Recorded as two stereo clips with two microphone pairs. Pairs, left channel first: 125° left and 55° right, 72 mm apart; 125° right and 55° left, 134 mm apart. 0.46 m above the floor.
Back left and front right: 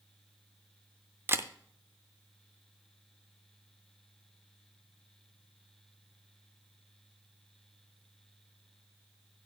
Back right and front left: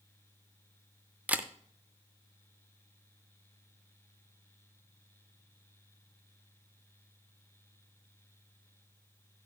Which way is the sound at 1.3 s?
20° right.